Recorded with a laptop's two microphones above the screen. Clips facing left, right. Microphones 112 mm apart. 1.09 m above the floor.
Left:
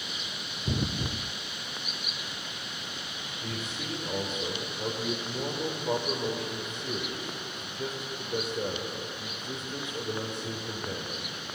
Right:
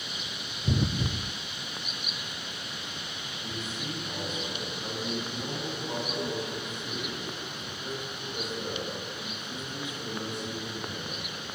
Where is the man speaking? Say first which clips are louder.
Even; 60° left (ahead or behind), 4.5 m.